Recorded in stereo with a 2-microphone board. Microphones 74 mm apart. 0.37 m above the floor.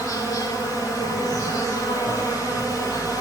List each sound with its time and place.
0.0 s an insect: 80° left, 9.5 m